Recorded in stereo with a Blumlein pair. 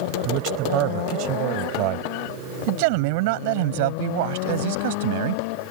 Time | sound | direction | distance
0.2 | a man speaking | 35° right | ?